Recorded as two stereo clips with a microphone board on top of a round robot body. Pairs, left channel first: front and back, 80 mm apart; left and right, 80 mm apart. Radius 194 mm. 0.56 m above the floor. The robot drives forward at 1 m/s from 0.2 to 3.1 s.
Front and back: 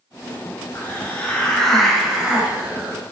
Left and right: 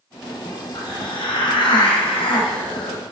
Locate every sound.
0.8 s a hiss: 65° left, 2.5 m; by 3.0 s 115° left, 2.5 m